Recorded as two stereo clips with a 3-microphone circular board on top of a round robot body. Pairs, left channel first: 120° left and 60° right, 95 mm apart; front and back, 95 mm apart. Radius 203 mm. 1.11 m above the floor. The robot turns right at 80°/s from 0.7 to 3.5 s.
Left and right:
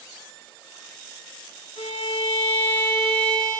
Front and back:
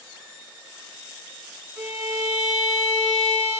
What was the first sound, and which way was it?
A violin, 105° left.